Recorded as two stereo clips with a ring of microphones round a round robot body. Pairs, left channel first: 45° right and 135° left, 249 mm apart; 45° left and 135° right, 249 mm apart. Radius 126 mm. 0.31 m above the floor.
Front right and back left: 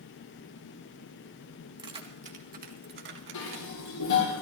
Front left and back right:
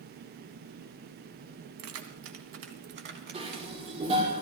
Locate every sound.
1.8 s keys jangling: 155° right, 2 m; by 4.0 s 165° left, 3 m
3.3 s dishes clattering: 65° right, 6 m